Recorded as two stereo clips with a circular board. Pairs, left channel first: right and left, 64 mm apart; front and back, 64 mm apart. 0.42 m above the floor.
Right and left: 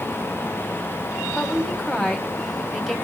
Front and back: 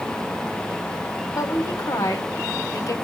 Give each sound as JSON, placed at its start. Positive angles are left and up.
{"t": 1.4, "sound": "a woman speaking", "azimuth_deg": -5, "distance_m": 2.0}